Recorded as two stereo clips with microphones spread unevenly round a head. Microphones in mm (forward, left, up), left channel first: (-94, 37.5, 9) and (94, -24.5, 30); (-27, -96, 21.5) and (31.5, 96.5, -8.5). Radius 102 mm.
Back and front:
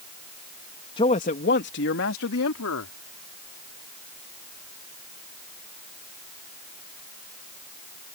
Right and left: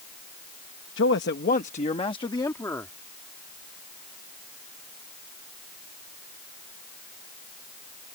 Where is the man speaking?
130° right; by 2.9 s 175° left.